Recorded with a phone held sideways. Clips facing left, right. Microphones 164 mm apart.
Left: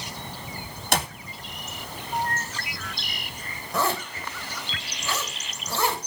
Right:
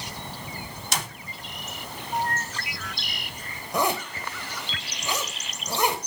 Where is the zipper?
15° right (ahead or behind), 2.5 m.